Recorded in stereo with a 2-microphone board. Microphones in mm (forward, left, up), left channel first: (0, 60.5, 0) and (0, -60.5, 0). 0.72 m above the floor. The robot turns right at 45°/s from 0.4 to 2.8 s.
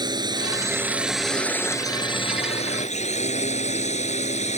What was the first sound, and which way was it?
A drone, 35° right.